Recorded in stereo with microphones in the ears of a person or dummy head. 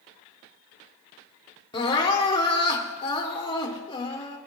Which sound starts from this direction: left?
Crying, at 1.7 s.